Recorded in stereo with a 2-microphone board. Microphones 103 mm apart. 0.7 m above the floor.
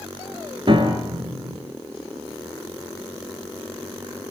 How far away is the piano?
About 4 m.